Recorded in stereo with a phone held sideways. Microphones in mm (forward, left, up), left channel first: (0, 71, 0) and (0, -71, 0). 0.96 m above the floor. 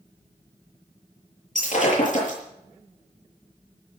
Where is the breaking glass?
60° left (ahead or behind), 8 m.